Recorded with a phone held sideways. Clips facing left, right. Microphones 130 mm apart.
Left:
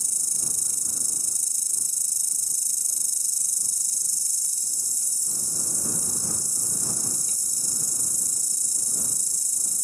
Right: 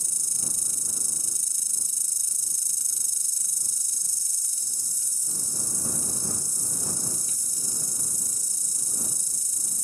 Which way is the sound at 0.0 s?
40° left (ahead or behind).